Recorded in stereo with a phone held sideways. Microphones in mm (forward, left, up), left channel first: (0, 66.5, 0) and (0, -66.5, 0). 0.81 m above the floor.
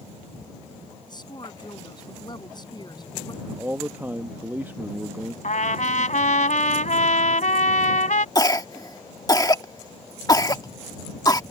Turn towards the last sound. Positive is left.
turn(degrees=30)  # may be behind; listen again after turning